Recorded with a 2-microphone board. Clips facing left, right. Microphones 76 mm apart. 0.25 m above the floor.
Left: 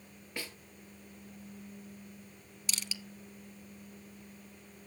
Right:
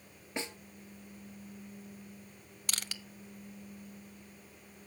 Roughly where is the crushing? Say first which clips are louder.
Even; right.